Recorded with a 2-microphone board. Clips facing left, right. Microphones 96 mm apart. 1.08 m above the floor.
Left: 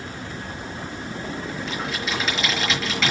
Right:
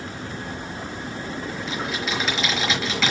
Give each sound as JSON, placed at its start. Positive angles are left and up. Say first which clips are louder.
{"t": 1.7, "sound": "typing on a keyboard", "louder": "right 1 dB", "side_deg": 0, "distance_m": 4.5}